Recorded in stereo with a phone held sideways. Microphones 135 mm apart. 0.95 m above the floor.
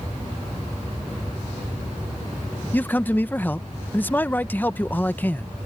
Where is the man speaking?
15° left (ahead or behind).